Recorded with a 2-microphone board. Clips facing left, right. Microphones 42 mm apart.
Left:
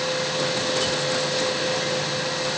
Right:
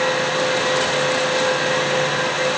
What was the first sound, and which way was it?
Only background noise.